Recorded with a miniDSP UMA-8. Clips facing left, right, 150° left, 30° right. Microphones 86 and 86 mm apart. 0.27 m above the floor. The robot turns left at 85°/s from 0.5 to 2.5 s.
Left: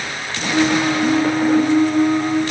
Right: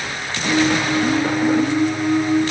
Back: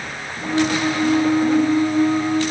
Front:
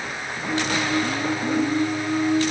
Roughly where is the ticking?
I don't hear ticking.